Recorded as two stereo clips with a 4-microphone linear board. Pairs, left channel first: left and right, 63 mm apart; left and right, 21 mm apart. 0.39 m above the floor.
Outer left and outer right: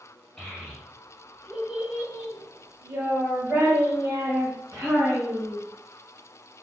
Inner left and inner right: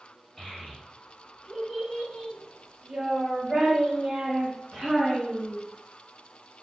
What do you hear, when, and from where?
0.4 s a child speaking: 10° left (ahead or behind), 1.6 m; by 5.6 s 50° right (ahead or behind), 2 m